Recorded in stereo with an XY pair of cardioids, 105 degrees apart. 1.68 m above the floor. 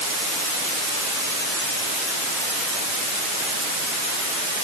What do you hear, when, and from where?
Only background noise.